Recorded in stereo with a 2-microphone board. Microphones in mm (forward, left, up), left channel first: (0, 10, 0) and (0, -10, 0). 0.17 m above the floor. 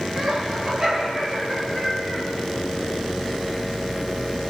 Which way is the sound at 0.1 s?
35° right (ahead or behind).